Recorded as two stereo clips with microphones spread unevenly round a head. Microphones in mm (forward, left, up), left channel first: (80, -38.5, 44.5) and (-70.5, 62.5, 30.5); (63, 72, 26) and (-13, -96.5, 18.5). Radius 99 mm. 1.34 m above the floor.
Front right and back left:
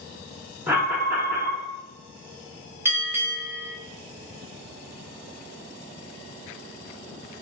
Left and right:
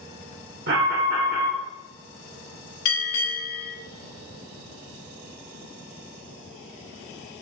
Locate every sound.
0.7 s an alarm: 135° right, 1.3 m
2.9 s a bell: 70° left, 1.5 m